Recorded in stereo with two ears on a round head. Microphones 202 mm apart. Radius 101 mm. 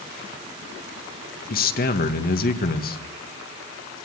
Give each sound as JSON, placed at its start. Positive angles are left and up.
{"t": 1.5, "sound": "a man speaking", "side_deg": 40, "distance_m": 1.7}